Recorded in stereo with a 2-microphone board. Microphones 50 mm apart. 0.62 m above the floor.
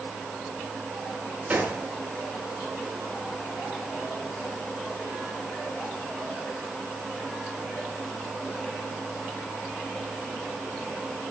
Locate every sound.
1.5 s a gunshot: 30° right (ahead or behind), 7 m